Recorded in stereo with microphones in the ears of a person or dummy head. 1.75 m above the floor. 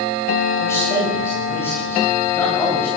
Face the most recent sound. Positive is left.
turn(degrees=10)  # may be behind; listen again after turning